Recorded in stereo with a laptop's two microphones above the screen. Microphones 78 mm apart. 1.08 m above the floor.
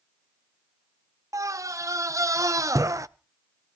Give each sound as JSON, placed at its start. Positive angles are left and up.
{"t": 1.3, "sound": "a scream", "side_deg": -45, "distance_m": 0.6}